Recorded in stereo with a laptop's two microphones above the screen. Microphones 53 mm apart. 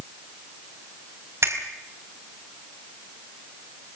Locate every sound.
1.4 s a finger snap: 65° right (ahead or behind), 4.5 m